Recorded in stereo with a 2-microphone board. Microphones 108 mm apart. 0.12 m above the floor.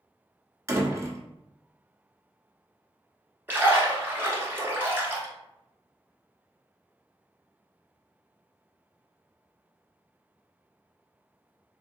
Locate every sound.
0.7 s a door slam: 30° right (ahead or behind), 1.0 m
3.5 s a splash: 20° right (ahead or behind), 1.3 m